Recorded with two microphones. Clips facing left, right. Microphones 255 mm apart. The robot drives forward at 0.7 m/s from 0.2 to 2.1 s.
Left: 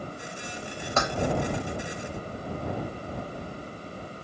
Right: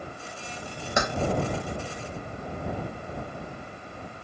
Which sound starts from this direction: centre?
Keys jangling, at 1.0 s.